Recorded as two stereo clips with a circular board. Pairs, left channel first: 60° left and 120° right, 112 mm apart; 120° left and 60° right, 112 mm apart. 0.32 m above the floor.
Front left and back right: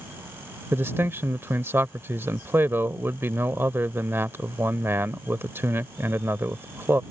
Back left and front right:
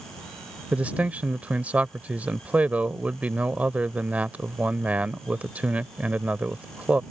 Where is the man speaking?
110° right.